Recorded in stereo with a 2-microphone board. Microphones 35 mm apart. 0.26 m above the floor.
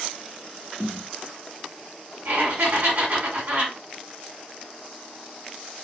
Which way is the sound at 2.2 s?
60° right (ahead or behind).